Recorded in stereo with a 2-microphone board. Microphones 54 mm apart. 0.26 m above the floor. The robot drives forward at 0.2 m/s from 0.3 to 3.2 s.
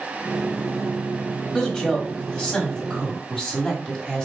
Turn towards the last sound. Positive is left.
turn(degrees=15)  # may be behind; listen again after turning